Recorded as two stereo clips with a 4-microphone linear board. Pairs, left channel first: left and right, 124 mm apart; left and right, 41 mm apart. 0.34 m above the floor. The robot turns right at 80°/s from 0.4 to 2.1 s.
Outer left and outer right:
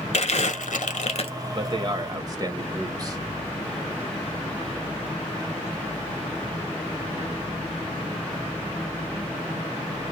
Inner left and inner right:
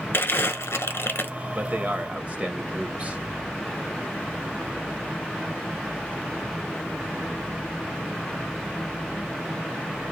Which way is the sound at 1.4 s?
100° right.